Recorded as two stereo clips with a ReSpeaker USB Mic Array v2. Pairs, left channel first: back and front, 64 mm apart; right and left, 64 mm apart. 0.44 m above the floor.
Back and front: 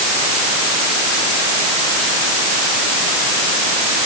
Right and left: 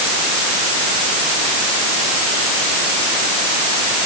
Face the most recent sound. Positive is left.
No sound to turn to.